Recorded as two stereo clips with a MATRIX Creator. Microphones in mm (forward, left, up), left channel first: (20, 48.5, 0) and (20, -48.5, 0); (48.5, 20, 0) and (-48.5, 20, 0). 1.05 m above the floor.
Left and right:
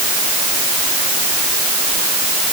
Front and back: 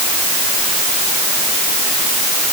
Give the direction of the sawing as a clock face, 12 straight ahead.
No sawing in this recording.